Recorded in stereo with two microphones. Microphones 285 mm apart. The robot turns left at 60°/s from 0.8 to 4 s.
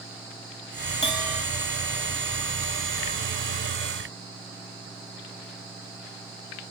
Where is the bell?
20° left (ahead or behind), 3.5 m; by 1.4 s centre (ahead or behind), 3.5 m.